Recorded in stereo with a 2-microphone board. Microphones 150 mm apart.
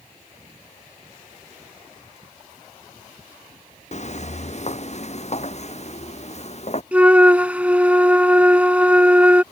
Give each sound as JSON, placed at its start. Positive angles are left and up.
{"t": 3.9, "sound": "footsteps", "side_deg": 50}
{"t": 6.9, "sound": "a flute", "side_deg": -10}